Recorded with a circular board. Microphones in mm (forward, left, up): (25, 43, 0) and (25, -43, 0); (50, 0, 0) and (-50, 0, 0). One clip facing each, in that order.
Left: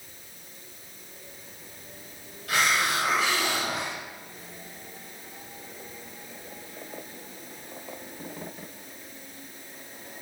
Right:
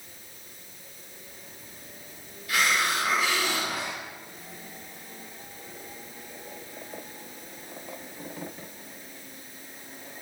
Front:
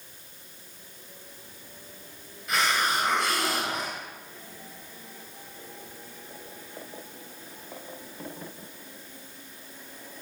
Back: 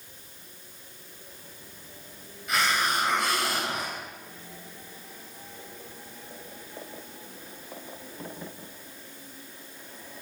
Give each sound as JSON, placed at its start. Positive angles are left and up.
{"t": 2.5, "sound": "a hiss", "azimuth_deg": 90, "distance_m": 3.5}